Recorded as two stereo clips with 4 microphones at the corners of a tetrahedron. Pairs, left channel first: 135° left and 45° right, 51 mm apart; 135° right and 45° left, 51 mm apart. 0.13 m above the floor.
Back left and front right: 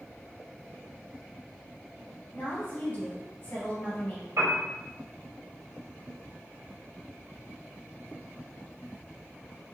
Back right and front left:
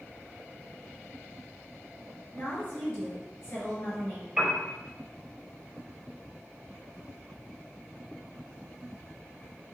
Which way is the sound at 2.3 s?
Straight behind.